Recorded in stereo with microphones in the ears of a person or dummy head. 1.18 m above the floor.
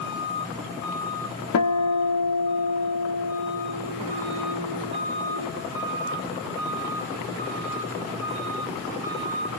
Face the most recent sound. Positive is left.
turn(degrees=80)